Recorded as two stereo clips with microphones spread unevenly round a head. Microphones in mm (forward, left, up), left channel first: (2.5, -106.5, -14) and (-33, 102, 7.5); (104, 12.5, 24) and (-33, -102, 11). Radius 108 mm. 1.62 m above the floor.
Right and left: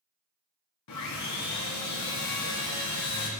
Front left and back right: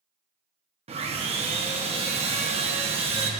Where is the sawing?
80° right, 1.1 m.